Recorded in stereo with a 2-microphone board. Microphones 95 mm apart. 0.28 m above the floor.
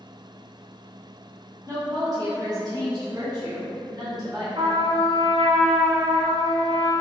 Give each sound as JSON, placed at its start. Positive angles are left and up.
{"t": 1.7, "sound": "a woman speaking", "side_deg": -35, "distance_m": 1.5}
{"t": 4.5, "sound": "a trumpet", "side_deg": -65, "distance_m": 1.2}